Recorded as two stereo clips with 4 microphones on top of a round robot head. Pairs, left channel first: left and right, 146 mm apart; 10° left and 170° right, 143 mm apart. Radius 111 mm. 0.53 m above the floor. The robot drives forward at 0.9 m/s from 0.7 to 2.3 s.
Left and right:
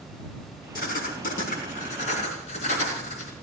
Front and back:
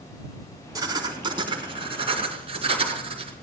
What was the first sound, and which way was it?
Writing, 125° left.